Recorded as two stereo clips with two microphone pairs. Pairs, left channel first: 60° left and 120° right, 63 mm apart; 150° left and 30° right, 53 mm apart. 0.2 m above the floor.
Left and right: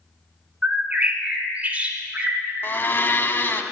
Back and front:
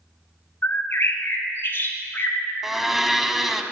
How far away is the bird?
About 1.1 m.